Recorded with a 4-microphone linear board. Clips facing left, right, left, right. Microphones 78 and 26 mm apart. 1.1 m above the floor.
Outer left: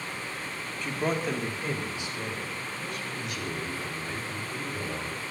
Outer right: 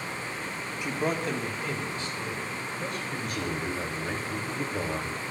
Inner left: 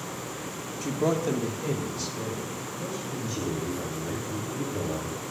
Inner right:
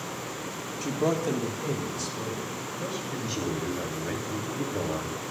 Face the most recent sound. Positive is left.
turn(degrees=-50)  # may be behind; listen again after turning